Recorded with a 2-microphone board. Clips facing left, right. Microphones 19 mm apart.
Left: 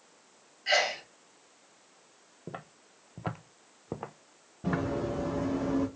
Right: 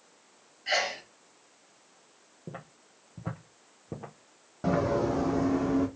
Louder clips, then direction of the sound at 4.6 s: Right 5 dB; 75° right (ahead or behind).